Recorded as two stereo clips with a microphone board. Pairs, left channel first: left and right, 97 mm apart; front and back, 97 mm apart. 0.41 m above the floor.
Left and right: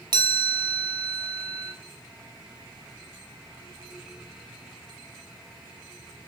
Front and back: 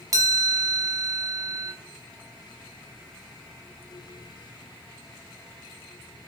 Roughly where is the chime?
Behind right.